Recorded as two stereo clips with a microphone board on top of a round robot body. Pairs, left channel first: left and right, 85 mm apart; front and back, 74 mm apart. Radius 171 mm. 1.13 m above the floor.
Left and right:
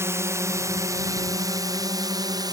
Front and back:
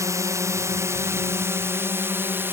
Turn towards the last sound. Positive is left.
turn(degrees=-125)